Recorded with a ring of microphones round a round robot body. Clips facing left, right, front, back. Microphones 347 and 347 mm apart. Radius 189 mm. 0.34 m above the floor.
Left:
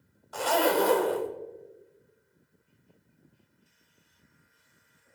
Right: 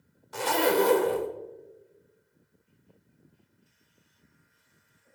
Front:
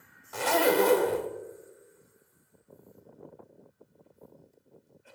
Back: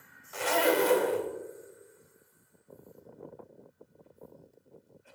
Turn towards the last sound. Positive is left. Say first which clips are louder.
# right 1 dB, front 2 dB
turn(degrees=-35)